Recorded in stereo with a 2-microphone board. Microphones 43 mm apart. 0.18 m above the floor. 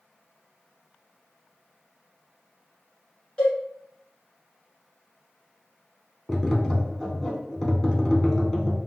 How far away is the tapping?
About 0.6 m.